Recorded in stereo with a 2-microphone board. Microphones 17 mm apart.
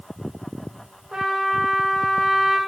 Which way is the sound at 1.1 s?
70° right (ahead or behind).